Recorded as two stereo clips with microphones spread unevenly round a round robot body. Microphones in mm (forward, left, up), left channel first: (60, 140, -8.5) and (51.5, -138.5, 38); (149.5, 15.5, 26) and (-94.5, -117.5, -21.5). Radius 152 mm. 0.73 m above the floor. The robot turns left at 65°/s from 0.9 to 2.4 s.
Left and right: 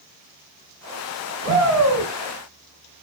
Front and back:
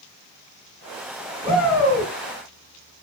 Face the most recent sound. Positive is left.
turn(degrees=-135)